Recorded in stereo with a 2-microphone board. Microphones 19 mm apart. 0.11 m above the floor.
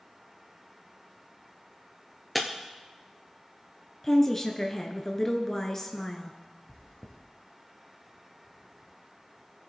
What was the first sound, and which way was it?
Breaking glass, 5° left (ahead or behind).